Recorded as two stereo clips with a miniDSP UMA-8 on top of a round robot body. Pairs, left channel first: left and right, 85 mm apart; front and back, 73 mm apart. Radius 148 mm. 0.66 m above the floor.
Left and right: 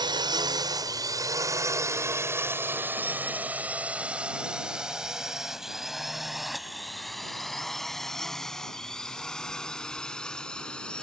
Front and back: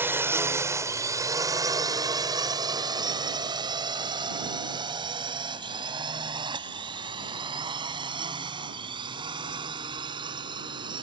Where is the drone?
120° right; by 11.0 s 170° left.